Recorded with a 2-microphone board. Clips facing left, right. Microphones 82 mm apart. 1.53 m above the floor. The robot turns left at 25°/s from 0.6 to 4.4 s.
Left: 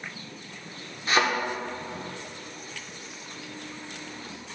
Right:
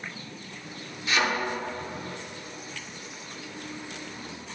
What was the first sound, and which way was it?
A thud, 40° left (ahead or behind).